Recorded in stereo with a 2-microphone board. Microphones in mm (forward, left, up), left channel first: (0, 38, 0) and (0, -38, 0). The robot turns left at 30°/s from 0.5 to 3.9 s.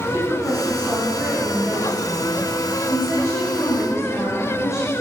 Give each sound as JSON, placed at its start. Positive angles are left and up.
{"t": 0.1, "sound": "a woman speaking", "azimuth_deg": -135, "distance_m": 2.0}